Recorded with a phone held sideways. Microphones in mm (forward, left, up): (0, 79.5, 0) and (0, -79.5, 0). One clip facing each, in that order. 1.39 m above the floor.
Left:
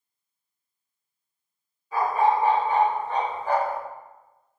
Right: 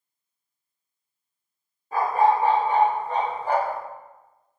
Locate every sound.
1.9 s a dog barking: 50° right (ahead or behind), 1.5 m; by 3.8 s 40° right (ahead or behind), 3 m